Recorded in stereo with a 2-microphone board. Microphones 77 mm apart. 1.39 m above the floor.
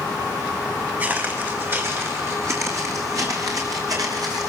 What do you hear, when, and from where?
1.0 s footsteps: 25° right (ahead or behind), 4 m; by 4.5 s 60° right (ahead or behind), 5 m